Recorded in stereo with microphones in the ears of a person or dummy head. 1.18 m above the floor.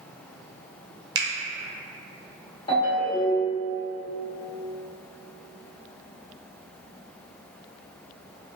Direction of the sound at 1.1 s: 25° right (ahead or behind).